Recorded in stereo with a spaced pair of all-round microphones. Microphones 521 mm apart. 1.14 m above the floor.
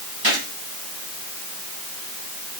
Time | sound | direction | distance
0.2 | a gunshot | 45° right (ahead or behind) | 6.5 m